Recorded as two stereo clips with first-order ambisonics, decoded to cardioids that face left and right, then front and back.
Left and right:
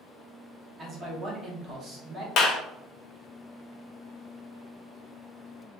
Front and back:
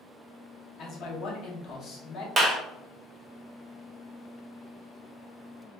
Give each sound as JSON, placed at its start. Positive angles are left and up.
{"t": 0.8, "sound": "a man speaking", "azimuth_deg": -40, "distance_m": 0.9}
{"t": 2.4, "sound": "a clap", "azimuth_deg": 125, "distance_m": 0.6}